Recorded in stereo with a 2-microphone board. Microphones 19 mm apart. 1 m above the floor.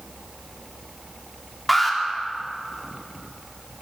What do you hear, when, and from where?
1.7 s an alarm: centre (ahead or behind), 3.5 m